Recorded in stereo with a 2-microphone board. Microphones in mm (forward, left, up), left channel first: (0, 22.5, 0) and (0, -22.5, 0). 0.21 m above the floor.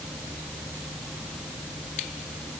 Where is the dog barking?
I don't hear a dog barking.